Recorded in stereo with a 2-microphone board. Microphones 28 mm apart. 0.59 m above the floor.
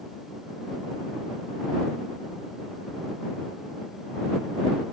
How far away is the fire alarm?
No fire alarm in this recording.